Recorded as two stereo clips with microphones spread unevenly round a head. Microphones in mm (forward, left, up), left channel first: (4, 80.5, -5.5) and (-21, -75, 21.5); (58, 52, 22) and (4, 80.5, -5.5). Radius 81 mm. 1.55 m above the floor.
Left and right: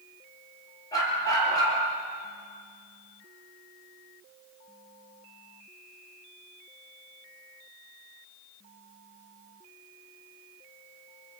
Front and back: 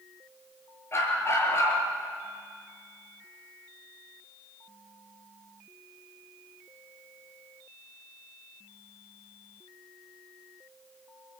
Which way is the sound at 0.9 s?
10° left.